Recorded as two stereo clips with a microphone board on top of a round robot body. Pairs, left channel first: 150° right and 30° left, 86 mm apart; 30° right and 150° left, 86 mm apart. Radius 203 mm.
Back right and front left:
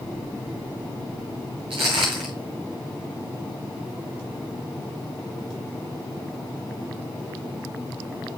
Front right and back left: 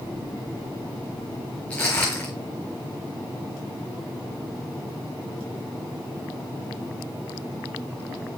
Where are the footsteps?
45° left, 0.5 m.